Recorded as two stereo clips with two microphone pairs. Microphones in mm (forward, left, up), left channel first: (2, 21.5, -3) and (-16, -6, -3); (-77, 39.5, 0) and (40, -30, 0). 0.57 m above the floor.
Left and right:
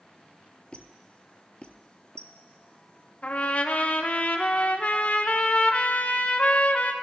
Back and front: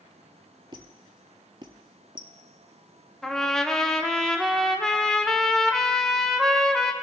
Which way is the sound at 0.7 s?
10° left.